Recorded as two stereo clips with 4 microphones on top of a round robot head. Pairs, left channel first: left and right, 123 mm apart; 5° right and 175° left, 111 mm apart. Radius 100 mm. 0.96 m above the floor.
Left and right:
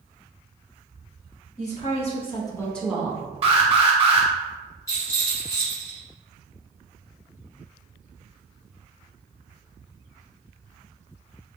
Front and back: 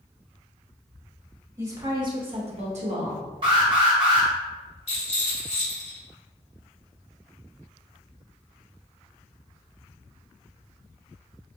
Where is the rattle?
20° left, 1.8 m.